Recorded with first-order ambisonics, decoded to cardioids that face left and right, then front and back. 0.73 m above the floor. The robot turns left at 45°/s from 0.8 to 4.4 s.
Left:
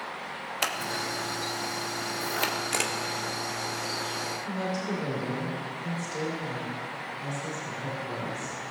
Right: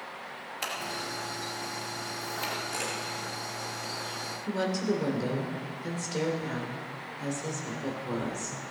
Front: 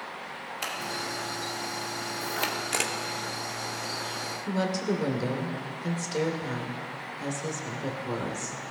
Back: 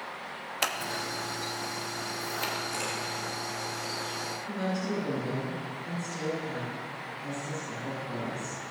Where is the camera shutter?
45° left, 1.1 m; by 2.9 s 35° left, 1.1 m.